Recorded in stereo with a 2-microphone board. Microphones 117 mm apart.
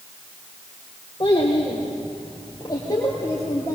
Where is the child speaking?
45° left (ahead or behind), 3 m; by 3.8 s 25° left (ahead or behind), 4.5 m.